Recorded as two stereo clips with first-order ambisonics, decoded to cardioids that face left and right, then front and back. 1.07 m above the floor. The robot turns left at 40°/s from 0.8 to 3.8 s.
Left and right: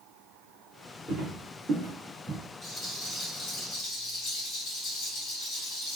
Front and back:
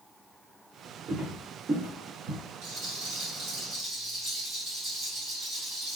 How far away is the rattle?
About 1.1 m.